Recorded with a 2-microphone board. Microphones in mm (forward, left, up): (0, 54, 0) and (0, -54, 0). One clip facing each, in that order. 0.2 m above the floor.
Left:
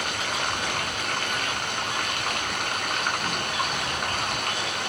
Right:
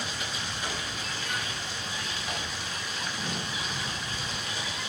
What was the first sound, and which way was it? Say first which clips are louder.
Running water: left 7 dB; 65° left (ahead or behind).